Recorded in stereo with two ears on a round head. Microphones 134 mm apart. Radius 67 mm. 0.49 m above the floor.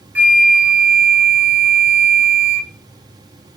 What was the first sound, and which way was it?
A flute, 10° right (ahead or behind).